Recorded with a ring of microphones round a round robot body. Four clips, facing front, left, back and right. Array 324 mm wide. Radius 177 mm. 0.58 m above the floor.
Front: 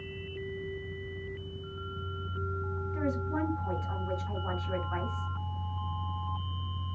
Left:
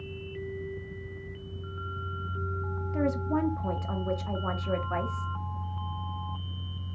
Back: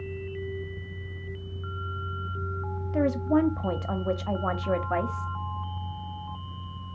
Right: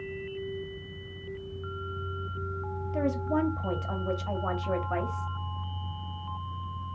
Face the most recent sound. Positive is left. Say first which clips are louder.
# even, back 10 dB
turn(degrees=-175)